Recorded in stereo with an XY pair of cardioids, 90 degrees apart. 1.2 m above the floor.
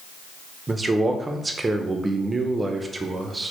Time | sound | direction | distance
0.7 | a man speaking | 30° right | 0.5 m